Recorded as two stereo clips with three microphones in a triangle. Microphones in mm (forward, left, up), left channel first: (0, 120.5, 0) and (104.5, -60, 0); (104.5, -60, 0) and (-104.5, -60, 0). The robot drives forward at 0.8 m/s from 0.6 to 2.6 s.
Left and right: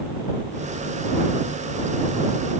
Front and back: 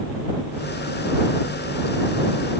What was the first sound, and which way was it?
Only background noise.